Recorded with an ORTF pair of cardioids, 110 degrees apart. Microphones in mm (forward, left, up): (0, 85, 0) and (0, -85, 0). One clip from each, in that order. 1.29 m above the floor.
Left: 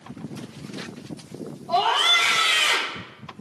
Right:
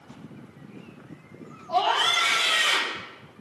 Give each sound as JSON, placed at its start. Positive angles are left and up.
{"t": 1.7, "sound": "a scream", "azimuth_deg": 60, "distance_m": 5.5}